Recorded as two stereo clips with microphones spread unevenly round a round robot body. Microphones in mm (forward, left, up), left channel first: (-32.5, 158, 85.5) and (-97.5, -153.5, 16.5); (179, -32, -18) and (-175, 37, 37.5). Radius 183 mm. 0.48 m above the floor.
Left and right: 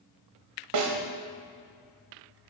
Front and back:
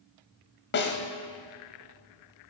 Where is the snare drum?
70° right, 1.5 m.